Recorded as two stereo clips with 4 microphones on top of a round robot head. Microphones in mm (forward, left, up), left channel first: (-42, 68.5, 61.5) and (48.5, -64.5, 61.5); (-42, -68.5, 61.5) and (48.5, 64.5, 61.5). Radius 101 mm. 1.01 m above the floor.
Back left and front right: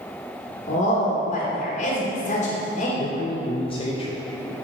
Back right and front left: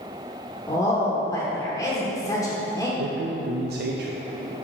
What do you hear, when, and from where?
0.7 s a woman speaking: 165° left, 1.5 m
3.0 s a man speaking: 65° left, 0.6 m